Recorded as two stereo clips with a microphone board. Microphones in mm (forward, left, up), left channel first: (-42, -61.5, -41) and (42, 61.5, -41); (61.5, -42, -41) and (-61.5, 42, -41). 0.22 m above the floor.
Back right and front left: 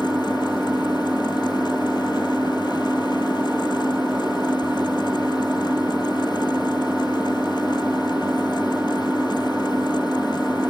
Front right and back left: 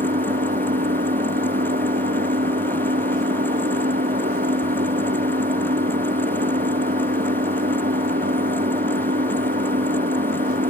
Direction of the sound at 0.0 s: 140° left.